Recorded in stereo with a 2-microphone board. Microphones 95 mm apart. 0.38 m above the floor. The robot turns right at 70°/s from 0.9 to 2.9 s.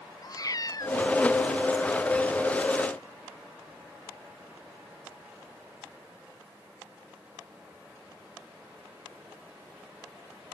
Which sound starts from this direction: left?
A cat meowing, at 0.2 s.